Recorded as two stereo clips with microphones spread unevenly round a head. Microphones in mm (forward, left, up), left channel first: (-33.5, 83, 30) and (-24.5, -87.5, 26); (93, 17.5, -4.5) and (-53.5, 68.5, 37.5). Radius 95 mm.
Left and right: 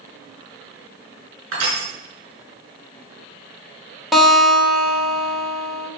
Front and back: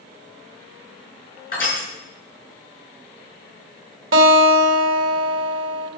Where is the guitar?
175° right, 2.5 m.